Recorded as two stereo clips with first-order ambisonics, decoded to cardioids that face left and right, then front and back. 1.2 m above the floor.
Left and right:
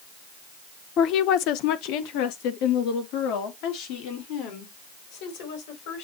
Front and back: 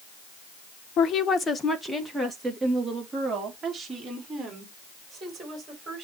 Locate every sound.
1.0 s a woman speaking: 45° left, 0.7 m; by 6.0 s 105° left, 4.5 m